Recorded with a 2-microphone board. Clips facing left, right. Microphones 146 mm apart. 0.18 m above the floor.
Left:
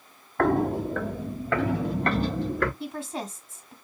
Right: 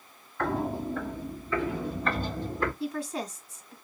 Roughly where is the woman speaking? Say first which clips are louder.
Right 1 dB; left.